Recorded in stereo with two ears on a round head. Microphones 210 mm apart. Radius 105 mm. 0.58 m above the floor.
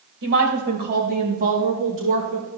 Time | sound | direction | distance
0.2 | a woman speaking | 55° right (ahead or behind) | 2.5 m